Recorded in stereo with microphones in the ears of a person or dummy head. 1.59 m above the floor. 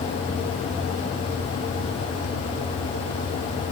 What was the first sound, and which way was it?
Only background noise.